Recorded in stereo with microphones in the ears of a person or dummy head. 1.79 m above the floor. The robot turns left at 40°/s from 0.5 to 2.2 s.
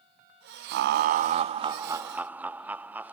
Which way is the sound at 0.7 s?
115° right.